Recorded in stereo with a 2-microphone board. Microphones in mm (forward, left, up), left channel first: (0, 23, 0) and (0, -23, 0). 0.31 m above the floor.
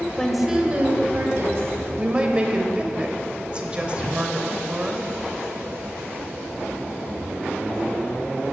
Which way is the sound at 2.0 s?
20° right (ahead or behind).